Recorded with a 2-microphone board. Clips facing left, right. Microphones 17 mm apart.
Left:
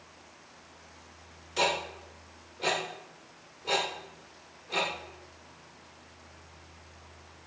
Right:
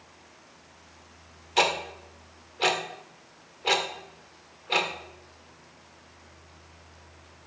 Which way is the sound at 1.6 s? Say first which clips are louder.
Right 4 dB; 90° right.